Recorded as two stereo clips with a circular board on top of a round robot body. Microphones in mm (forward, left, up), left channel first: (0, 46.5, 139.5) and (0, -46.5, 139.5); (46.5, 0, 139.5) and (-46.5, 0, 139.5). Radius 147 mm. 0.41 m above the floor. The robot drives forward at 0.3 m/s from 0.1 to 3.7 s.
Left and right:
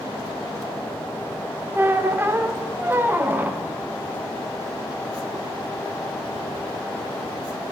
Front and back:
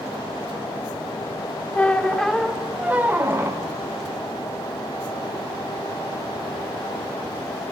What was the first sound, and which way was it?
A squeak, 55° right.